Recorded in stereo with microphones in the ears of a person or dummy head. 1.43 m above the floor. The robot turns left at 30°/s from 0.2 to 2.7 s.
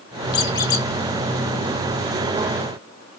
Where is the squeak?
30° left (ahead or behind), 1.0 m; by 0.9 s 20° left (ahead or behind), 1.0 m.